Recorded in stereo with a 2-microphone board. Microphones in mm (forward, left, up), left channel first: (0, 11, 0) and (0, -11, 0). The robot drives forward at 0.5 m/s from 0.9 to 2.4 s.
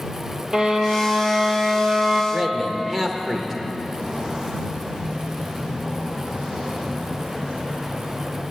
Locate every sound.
0.5 s a violin: 30° right (ahead or behind), 2.5 m; by 2.2 s 40° right (ahead or behind), 1.7 m
2.3 s a man speaking: 15° right (ahead or behind), 1.3 m
3.8 s footsteps: 30° right (ahead or behind), 5.5 m; by 8.4 s 55° right (ahead or behind), 5.5 m